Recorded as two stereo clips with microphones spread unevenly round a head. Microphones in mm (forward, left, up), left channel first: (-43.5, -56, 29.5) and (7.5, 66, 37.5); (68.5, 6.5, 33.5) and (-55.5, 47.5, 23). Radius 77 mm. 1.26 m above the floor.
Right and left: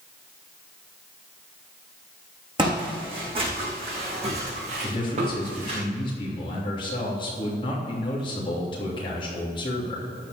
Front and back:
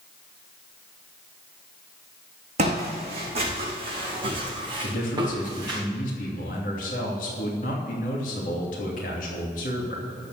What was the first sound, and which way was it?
Footsteps, 120° left.